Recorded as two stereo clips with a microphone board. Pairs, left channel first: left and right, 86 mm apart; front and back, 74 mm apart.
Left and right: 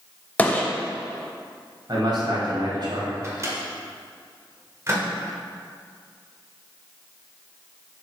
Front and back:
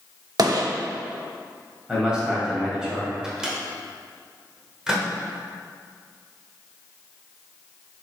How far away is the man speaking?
About 2 m.